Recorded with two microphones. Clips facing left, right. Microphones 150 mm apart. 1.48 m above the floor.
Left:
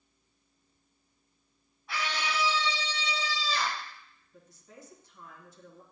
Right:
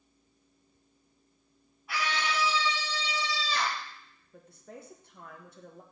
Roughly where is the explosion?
I don't hear an explosion.